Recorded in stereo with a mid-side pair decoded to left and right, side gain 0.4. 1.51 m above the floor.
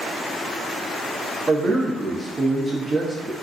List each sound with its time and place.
1.5 s a man speaking: 35° right, 0.8 m